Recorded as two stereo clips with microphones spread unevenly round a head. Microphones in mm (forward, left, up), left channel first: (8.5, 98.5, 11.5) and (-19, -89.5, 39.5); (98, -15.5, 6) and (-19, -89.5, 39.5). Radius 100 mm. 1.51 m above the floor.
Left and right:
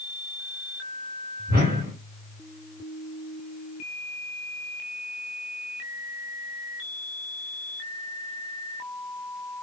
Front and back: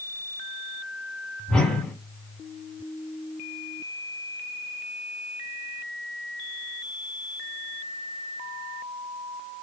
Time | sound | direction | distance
1.5 | a whoosh | 60° right | 1.8 m